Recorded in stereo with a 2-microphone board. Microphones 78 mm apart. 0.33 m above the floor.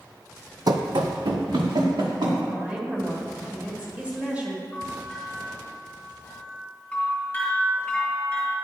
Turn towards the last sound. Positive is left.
turn(degrees=15)  # may be behind; listen again after turning